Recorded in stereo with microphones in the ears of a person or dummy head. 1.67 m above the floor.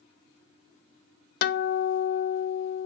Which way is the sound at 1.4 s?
55° left (ahead or behind).